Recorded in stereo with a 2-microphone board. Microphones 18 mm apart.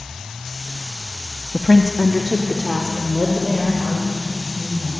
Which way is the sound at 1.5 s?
10° right (ahead or behind).